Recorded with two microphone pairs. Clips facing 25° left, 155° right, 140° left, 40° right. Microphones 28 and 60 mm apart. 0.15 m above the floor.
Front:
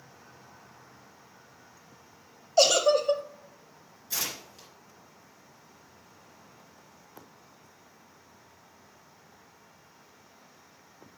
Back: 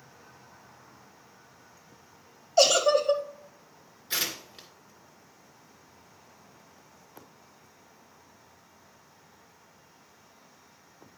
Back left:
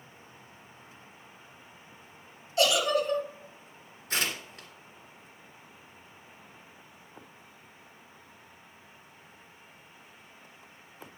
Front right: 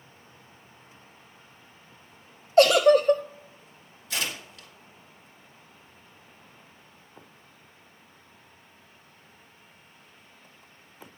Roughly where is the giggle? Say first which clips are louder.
Even, front right 9 dB; right.